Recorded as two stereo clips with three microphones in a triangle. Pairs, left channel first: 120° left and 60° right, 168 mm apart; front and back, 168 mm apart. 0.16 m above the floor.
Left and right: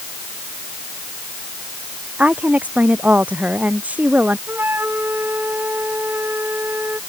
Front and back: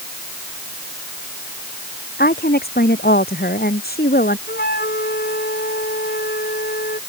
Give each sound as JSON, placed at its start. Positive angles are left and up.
{"t": 2.2, "sound": "a woman speaking", "azimuth_deg": 20}
{"t": 4.5, "sound": "a flute", "azimuth_deg": 20}